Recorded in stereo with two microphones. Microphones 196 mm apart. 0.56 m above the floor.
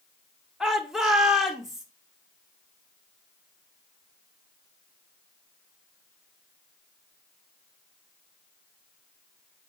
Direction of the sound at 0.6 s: Centre (ahead or behind).